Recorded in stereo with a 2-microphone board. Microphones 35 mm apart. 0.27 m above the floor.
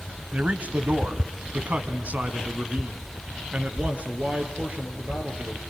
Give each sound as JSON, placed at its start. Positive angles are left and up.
{"t": 0.3, "sound": "a man speaking", "side_deg": -45, "distance_m": 1.2}